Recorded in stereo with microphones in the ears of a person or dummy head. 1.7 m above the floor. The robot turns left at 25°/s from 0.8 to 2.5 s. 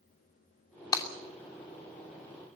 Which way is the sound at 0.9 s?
20° left (ahead or behind).